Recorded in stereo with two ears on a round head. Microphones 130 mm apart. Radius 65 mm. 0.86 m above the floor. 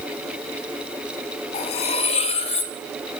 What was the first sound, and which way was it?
Cutlery clinking, 45° left (ahead or behind).